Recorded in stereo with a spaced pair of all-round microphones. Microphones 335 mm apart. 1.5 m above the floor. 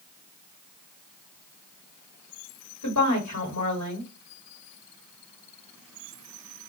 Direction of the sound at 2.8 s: 55° left (ahead or behind).